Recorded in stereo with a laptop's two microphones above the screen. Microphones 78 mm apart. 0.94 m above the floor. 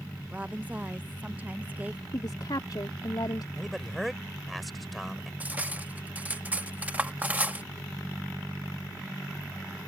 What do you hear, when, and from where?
0.3 s a woman speaking: 20° right (ahead or behind)
2.1 s a woman speaking: 65° left (ahead or behind)
3.6 s a man speaking: centre (ahead or behind)
5.4 s cutlery clinking: 20° right (ahead or behind)